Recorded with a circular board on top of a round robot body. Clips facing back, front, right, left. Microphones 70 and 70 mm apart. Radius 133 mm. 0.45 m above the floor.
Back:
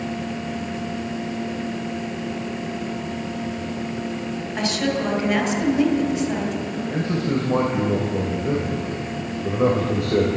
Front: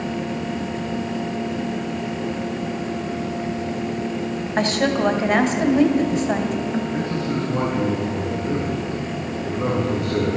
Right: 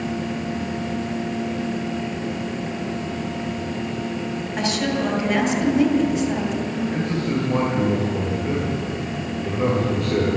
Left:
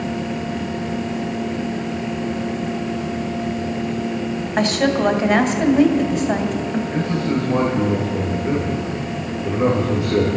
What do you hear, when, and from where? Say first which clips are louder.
4.6 s a woman speaking: front 4 dB, left 6 dB; 45° left, 2.5 m
6.9 s a man speaking: back 1 dB, left 3 dB; 170° left, 3 m